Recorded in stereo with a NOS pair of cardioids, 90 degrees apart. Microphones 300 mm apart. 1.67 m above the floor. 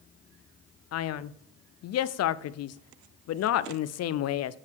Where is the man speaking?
55° left, 0.5 m.